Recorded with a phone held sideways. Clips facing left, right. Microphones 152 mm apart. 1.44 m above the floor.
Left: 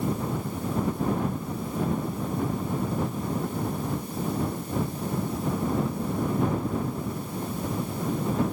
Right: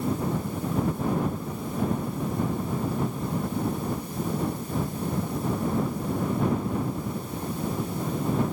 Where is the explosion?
No explosion in this recording.